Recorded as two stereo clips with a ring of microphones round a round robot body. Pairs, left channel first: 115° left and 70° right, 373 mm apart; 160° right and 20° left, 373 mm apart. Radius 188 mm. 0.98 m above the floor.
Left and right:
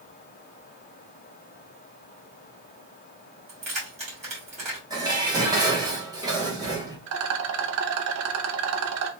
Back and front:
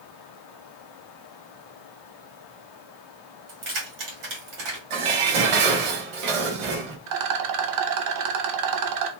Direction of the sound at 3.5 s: 5° left.